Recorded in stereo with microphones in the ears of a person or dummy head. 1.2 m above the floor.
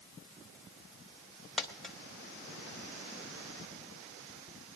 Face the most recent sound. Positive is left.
turn(degrees=0)  # may be behind; listen again after turning